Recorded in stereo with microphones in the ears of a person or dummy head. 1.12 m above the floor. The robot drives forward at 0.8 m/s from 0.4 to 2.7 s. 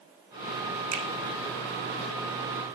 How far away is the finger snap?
About 2 m.